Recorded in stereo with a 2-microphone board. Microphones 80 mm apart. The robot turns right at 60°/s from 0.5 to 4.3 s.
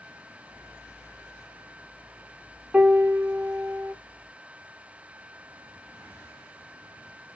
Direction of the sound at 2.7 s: 165° right.